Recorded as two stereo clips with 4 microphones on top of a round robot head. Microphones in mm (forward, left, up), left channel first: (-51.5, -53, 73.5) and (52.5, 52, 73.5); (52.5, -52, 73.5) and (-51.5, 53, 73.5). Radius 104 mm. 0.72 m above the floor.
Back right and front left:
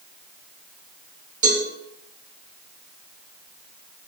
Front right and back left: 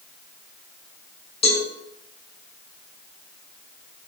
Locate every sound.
1.4 s a cowbell: 5° left, 4 m